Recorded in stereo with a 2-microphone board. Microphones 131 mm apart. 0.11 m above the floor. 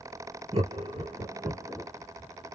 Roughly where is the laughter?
Right.